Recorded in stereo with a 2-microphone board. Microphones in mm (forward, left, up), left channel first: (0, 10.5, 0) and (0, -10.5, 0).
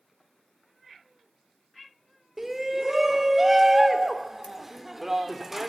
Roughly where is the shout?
Centre.